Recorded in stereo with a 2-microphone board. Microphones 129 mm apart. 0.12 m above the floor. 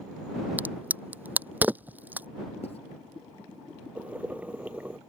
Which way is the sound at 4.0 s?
10° right (ahead or behind).